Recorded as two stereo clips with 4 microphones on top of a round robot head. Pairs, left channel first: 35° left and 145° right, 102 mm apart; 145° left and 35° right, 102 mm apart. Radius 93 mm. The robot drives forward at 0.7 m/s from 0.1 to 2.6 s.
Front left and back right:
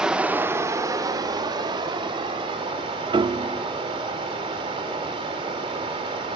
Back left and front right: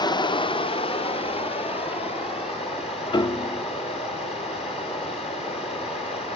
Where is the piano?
Straight behind, 0.5 m.